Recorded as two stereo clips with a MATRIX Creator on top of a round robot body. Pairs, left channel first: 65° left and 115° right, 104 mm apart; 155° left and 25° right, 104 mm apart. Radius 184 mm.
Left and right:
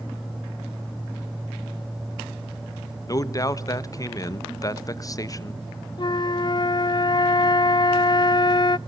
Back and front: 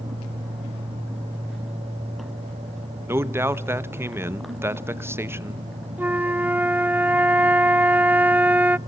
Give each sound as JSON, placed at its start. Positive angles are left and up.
{"t": 3.1, "sound": "a man speaking", "azimuth_deg": 35, "distance_m": 1.4}
{"t": 6.0, "sound": "a flute", "azimuth_deg": 45, "distance_m": 0.5}